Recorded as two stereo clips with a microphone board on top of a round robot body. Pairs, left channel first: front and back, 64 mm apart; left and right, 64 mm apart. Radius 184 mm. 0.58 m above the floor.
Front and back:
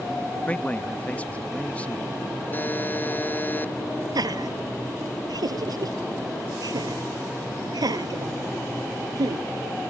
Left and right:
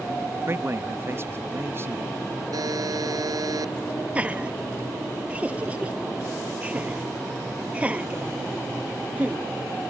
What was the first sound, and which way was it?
A man speaking, 60° right.